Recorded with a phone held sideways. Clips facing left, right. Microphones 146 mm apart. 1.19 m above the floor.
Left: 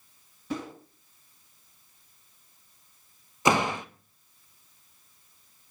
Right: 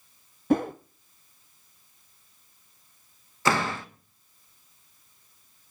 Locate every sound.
0.5 s a whoosh: 55° right (ahead or behind), 0.6 m
3.5 s a door slam: 15° left (ahead or behind), 0.7 m